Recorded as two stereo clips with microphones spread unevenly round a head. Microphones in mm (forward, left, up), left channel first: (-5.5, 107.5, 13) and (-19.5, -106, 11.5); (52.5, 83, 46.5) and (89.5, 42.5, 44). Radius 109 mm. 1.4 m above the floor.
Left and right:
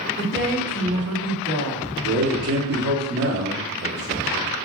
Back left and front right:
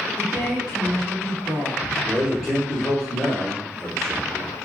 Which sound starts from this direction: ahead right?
A woman speaking, at 0.2 s.